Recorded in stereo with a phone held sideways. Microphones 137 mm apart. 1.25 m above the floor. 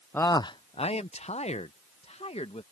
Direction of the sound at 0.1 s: 15° left (ahead or behind).